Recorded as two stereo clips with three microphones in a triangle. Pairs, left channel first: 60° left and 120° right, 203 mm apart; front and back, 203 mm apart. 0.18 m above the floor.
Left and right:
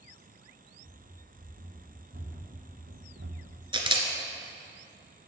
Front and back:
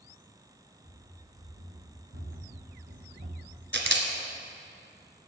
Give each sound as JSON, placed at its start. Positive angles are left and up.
{"t": 0.8, "sound": "running footsteps", "azimuth_deg": -160, "distance_m": 3.5}
{"t": 3.7, "sound": "a camera shutter", "azimuth_deg": 180, "distance_m": 1.3}